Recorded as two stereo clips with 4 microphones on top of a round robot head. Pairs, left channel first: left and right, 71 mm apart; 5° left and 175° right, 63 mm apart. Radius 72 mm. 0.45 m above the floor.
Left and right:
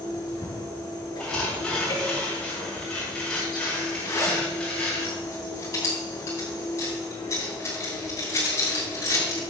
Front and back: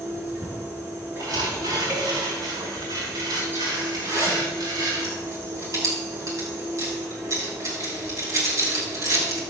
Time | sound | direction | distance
0.0 | an insect | 130° left | 5 m
1.2 | tearing paper | 170° left | 5 m
4.0 | a zipper | 150° left | 7 m